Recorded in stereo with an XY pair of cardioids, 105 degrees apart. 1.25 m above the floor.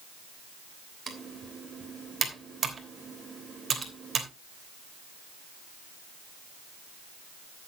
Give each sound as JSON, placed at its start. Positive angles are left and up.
{"t": 1.1, "sound": "typing on a keyboard", "azimuth_deg": -35, "distance_m": 3.0}